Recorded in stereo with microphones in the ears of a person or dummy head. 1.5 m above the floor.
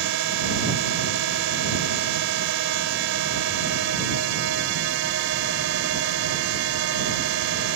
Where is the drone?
65° right (ahead or behind).